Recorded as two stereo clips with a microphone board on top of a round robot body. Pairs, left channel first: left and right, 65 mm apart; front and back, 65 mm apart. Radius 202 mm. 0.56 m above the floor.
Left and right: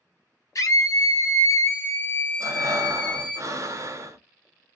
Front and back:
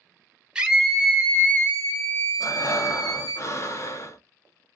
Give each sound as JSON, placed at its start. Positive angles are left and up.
{"t": 0.6, "sound": "a scream", "azimuth_deg": 105, "distance_m": 1.0}
{"t": 2.4, "sound": "breathing", "azimuth_deg": -45, "distance_m": 0.9}